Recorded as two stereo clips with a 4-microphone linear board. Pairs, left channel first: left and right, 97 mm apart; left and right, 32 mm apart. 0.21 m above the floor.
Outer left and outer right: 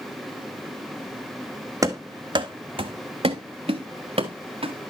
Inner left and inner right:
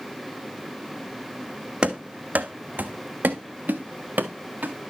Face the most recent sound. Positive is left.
turn(degrees=-80)